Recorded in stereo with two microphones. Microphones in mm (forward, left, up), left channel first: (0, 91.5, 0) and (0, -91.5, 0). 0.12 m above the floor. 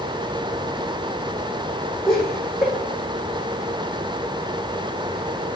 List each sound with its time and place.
2.1 s laughter: centre (ahead or behind), 4.5 m